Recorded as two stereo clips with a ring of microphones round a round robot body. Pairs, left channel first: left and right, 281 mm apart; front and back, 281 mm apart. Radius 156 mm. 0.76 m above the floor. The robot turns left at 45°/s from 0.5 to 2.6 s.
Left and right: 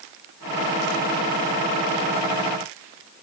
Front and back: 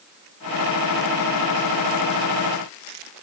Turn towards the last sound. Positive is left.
No sound to turn to.